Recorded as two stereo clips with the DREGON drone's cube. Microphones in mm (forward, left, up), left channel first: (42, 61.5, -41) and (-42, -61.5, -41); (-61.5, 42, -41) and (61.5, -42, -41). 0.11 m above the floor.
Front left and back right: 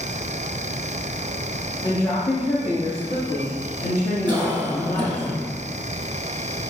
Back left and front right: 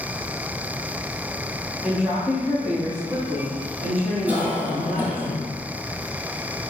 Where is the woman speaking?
45° left, 1.1 m; by 5.2 s 40° left, 3 m.